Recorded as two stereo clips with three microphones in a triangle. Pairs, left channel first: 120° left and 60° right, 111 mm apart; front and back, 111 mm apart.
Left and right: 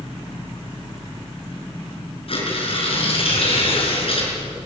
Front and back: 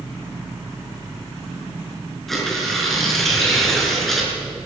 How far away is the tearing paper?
About 5 m.